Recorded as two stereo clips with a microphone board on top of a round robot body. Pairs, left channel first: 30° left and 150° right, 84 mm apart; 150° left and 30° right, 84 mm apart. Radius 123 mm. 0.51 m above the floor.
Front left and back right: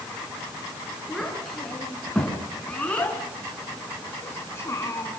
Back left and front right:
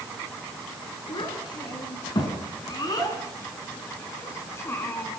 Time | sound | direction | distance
1.1 | a child speaking | 115° left | 7.5 m